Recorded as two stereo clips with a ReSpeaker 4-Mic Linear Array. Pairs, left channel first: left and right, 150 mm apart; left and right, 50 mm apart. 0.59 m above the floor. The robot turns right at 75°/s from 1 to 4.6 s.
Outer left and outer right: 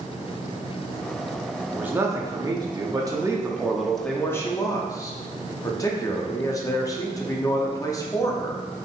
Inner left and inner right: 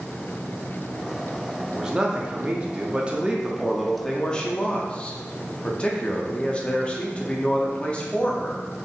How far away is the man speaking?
About 0.6 m.